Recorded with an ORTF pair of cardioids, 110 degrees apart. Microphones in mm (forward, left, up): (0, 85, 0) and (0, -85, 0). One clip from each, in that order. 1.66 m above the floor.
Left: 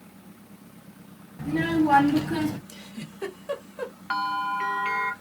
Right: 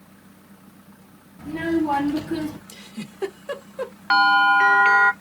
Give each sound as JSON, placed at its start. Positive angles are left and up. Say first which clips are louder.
{"t": 1.4, "sound": "a child speaking", "louder": "even", "azimuth_deg": 15, "distance_m": 1.4}
{"t": 2.7, "sound": "a giggle", "louder": "right 3 dB", "azimuth_deg": -15, "distance_m": 0.9}
{"t": 4.1, "sound": "a bell", "louder": "right 12 dB", "azimuth_deg": -35, "distance_m": 0.5}